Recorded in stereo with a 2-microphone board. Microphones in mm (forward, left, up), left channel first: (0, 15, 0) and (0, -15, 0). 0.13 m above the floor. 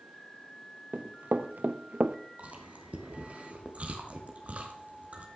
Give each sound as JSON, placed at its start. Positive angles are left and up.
{"t": 0.9, "sound": "running footsteps", "side_deg": -80, "distance_m": 1.6}
{"t": 2.4, "sound": "chewing", "side_deg": -50, "distance_m": 2.5}